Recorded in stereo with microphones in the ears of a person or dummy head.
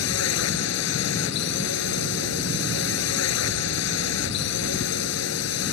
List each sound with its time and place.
0.0 s a drone: 80° left